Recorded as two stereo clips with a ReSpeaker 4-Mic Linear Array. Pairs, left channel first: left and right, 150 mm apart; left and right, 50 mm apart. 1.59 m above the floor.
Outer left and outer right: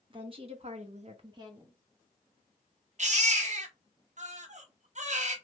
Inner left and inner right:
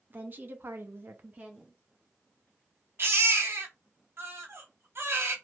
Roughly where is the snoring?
No snoring in this recording.